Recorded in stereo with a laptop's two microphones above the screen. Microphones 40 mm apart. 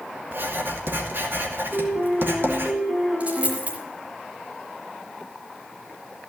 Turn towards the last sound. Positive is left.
turn(degrees=-40)  # may be behind; listen again after turning